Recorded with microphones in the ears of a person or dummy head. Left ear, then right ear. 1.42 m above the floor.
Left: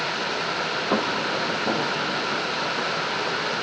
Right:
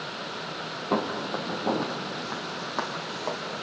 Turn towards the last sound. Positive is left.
turn(degrees=-55)  # may be behind; listen again after turning